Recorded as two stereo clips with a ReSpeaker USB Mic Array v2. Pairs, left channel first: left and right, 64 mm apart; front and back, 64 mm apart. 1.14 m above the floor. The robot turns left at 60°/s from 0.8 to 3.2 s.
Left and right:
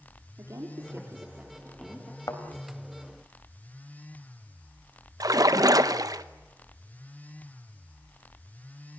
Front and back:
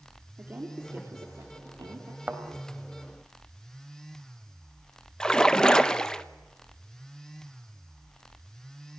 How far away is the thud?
About 3 m.